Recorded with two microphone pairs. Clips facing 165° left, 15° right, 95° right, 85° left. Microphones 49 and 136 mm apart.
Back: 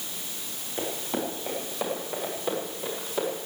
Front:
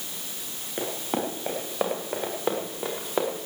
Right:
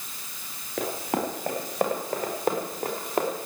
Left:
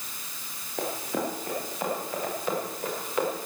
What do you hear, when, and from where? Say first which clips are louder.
0.8 s running footsteps: front 2 dB, right 2 dB; 75° right, 6.5 m; by 3.5 s 45° right, 6.5 m